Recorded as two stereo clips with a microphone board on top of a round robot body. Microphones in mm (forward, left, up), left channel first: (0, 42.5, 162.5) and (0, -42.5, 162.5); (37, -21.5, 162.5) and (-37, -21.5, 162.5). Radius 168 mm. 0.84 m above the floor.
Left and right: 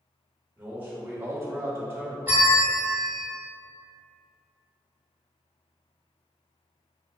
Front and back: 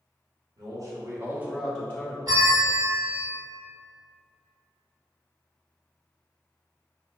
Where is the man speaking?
160° right, 1.1 m; by 2.2 s 35° right, 0.8 m.